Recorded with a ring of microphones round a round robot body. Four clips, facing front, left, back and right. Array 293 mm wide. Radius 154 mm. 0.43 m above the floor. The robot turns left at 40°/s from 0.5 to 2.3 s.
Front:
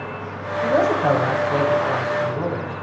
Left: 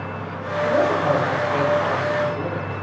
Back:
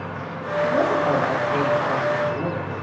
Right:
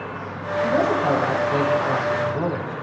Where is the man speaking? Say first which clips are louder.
Left 1 dB, front 2 dB; 10° left, 4 m; by 2.8 s 60° right, 4 m.